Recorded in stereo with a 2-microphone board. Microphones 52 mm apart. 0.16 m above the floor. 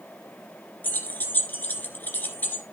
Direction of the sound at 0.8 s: 40° left (ahead or behind).